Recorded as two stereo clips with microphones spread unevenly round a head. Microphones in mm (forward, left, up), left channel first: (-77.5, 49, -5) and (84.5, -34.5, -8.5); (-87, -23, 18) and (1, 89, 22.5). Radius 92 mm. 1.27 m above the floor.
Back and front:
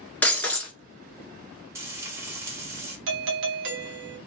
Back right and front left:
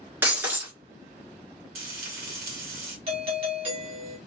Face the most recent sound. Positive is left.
turn(degrees=-5)